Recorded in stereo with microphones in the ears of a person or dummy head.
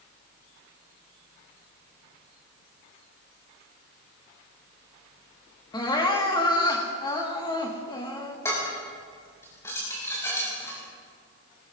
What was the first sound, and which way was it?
Crying, 25° left (ahead or behind).